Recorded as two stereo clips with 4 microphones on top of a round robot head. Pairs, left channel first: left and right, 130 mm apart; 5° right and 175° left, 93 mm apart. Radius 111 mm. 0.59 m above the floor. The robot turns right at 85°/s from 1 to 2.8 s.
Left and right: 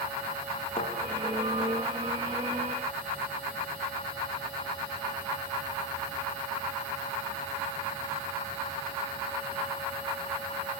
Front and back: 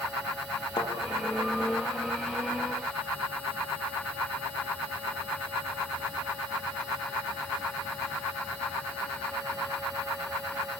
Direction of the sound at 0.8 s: 35° left.